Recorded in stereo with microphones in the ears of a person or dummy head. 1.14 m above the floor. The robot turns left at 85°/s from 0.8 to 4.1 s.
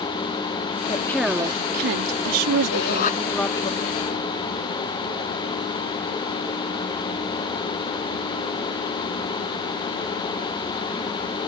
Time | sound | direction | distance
0.9 | a woman speaking | 30° left | ?
2.7 | a shout | 75° left | ?